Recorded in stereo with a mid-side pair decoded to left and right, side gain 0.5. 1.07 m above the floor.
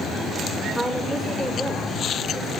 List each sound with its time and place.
0.8 s a woman speaking: 5° left, 3 m; by 2.5 s 15° left, 5.5 m